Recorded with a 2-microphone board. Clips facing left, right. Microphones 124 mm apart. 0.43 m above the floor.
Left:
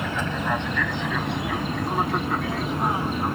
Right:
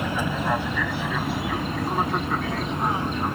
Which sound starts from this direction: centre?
An aircraft, at 0.0 s.